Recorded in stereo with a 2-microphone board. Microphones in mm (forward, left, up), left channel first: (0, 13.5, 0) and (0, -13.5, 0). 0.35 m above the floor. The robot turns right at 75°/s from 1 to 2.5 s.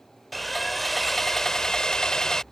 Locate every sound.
0.3 s sawing: 10° left (ahead or behind); by 2.4 s 25° left (ahead or behind)